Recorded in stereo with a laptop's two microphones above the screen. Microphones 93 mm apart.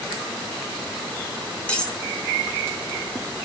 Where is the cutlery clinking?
10° left (ahead or behind), 1.2 m.